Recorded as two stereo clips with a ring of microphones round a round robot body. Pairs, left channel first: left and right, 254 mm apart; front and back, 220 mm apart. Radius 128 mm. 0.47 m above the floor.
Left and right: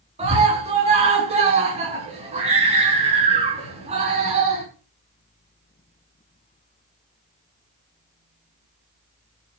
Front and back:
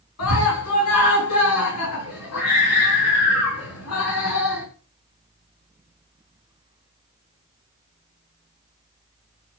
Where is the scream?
25° right, 5 m.